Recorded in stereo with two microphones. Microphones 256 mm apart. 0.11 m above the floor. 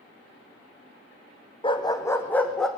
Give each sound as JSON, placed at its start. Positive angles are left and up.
{"t": 1.6, "sound": "a dog barking", "side_deg": 20, "distance_m": 1.9}